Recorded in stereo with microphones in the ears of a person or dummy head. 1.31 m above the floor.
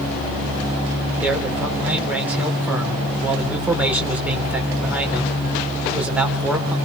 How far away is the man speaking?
About 3.5 m.